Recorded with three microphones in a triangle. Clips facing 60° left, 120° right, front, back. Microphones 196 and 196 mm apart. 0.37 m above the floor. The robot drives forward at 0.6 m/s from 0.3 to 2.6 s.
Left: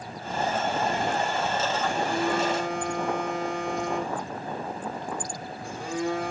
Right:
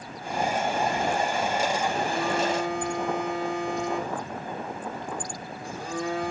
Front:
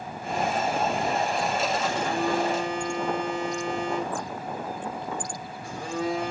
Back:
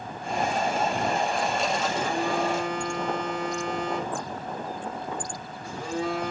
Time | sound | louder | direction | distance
1.9 | a phone buzzing | left 1 dB, front 1 dB | 165° left | 1.7 m